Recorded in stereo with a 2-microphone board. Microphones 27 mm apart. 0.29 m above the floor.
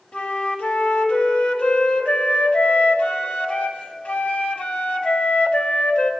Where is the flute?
55° left (ahead or behind), 1.8 m.